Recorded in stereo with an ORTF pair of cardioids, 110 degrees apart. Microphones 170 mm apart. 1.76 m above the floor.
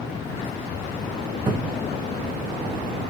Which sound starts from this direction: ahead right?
A cupboard door, at 1.5 s.